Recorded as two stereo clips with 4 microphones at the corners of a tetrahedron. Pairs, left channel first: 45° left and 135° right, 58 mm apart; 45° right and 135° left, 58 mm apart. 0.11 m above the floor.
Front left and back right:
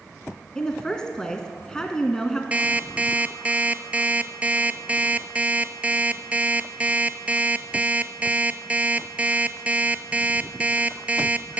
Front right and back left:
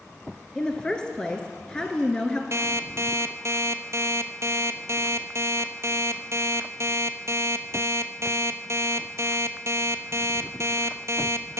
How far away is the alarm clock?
About 0.9 m.